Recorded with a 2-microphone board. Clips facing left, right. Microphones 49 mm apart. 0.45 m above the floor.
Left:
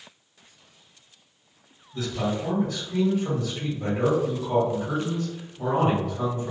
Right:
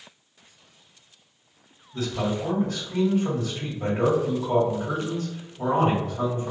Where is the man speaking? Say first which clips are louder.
Right 1 dB; 25° right (ahead or behind), 1.5 m.